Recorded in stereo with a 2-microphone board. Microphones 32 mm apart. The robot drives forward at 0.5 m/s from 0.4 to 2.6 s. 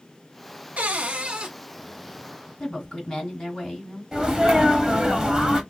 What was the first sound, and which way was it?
A cupboard door, 50° right (ahead or behind).